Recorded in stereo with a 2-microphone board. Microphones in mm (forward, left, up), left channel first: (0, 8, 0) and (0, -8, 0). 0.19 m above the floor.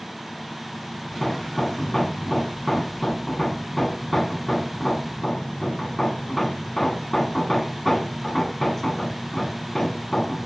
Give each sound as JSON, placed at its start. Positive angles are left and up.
{"t": 1.1, "sound": "hammering", "side_deg": 15, "distance_m": 1.5}